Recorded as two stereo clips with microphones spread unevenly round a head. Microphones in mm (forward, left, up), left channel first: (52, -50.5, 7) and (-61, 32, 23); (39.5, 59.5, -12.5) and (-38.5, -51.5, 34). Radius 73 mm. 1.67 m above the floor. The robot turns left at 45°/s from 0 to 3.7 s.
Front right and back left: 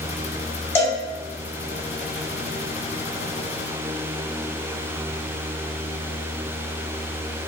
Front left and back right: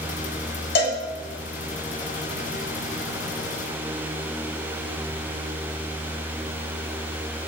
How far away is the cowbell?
About 0.7 m.